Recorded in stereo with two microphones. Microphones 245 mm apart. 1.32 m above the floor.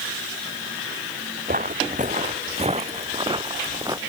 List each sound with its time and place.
1.5 s footsteps: 35° right (ahead or behind); by 4.0 s 15° right (ahead or behind)